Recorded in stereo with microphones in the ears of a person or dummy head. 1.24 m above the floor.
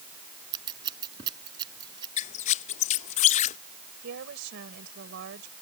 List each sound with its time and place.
0.5 s scissors: 30° right (ahead or behind)
2.2 s a squeak: 30° left (ahead or behind)
4.0 s a woman speaking: 60° right (ahead or behind)